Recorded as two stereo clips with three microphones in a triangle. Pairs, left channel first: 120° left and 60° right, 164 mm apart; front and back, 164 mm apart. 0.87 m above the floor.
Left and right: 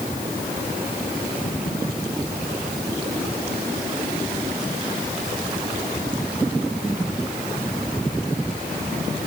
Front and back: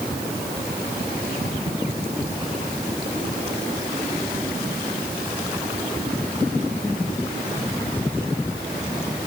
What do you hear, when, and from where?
Only background noise.